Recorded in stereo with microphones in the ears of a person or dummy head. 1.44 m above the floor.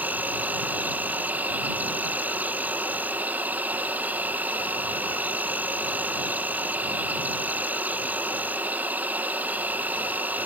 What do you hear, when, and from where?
0.0 s an insect: 5° right (ahead or behind)